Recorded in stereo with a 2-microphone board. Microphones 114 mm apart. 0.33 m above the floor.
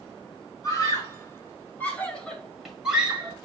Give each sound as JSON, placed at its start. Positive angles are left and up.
{"t": 0.6, "sound": "a scream", "side_deg": 35, "distance_m": 2.5}